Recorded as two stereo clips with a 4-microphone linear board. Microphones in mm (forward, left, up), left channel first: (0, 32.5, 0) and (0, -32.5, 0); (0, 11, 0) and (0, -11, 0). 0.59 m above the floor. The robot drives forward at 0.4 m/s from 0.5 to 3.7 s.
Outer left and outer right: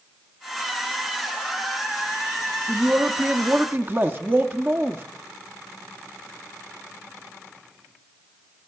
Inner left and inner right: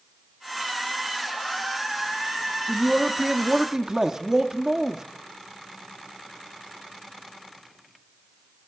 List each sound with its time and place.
2.7 s a man speaking: 30° right (ahead or behind), 0.9 m